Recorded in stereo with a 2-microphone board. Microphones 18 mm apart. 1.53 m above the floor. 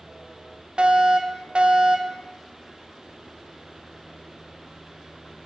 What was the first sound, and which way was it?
A fire alarm, 60° right (ahead or behind).